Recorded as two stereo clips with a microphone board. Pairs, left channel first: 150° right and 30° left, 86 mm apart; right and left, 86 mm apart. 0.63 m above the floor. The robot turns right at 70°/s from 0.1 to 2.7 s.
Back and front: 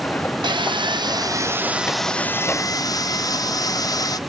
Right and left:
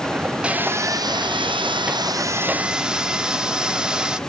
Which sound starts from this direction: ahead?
Sawing, at 0.4 s.